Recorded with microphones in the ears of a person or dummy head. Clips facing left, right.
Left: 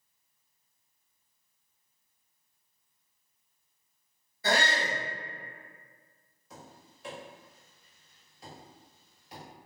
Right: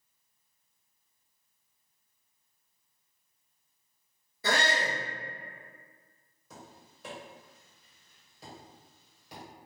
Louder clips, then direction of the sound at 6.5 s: Even; 85° right.